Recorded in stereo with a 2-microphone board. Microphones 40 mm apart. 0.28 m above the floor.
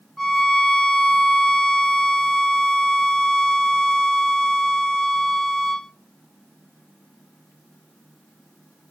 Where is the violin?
Centre (ahead or behind), 0.7 m.